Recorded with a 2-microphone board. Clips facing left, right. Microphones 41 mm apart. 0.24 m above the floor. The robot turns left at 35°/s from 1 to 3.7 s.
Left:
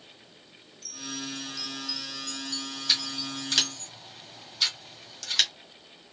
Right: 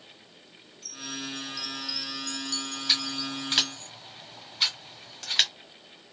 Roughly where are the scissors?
Centre.